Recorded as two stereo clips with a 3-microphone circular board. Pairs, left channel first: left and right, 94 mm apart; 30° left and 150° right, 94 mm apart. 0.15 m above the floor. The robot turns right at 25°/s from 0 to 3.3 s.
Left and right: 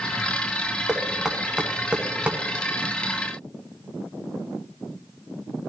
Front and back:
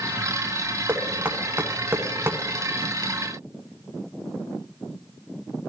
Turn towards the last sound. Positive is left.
turn(degrees=-120)